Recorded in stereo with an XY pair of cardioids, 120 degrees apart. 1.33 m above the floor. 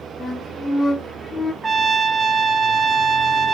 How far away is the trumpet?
About 1.4 m.